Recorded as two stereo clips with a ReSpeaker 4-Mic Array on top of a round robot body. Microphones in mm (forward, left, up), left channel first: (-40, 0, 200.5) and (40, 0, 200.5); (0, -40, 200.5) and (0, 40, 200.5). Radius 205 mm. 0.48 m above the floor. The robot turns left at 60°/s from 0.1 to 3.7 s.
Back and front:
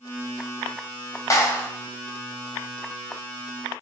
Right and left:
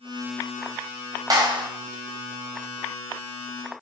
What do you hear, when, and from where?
1.3 s a clap: 130° left, 2.5 m; by 1.7 s 105° left, 2.5 m